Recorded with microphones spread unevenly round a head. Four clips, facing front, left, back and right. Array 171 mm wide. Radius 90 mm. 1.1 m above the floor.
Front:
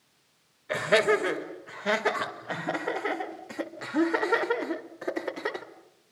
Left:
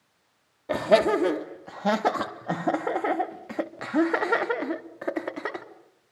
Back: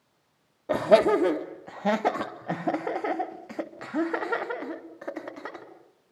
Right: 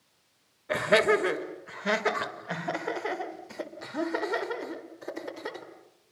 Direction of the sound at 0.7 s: 145° left.